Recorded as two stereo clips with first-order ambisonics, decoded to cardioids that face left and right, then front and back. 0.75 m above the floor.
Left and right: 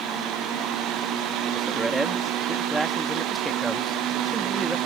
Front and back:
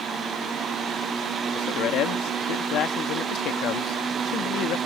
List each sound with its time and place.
1.5 s a man speaking: 10° right